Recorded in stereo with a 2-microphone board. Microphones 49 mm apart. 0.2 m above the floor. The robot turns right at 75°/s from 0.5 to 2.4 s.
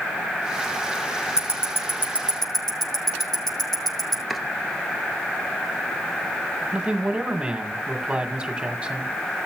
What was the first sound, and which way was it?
Ticking, 80° left.